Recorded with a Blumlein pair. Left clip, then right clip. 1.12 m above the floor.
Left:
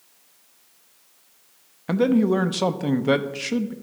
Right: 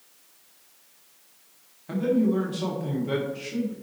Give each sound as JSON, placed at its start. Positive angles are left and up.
{"t": 1.9, "sound": "a man speaking", "azimuth_deg": 35, "distance_m": 0.7}